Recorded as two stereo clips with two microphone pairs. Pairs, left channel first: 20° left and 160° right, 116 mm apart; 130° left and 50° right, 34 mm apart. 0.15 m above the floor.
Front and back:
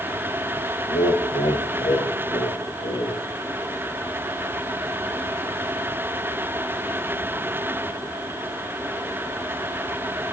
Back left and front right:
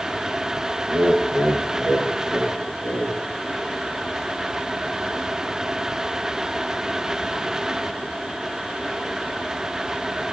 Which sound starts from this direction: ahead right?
Laughter, at 0.9 s.